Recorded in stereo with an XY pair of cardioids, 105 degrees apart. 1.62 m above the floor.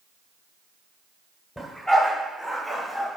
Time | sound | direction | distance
1.6 | a dog barking | 10° left | 3.5 m